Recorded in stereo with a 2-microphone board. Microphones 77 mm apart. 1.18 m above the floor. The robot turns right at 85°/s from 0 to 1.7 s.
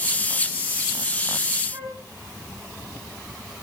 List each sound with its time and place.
1.7 s a flute: 80° right, 8.5 m